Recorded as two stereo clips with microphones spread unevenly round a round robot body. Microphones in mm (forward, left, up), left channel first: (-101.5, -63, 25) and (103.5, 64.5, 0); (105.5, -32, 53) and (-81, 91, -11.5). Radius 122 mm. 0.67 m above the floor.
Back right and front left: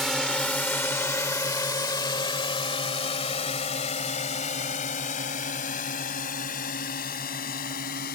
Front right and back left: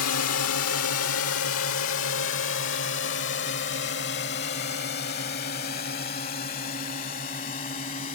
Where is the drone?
55° right; by 8.2 s 95° right.